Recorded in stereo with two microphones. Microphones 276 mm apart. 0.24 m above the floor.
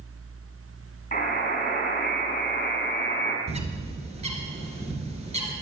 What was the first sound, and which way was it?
A buzzer, 30° left (ahead or behind).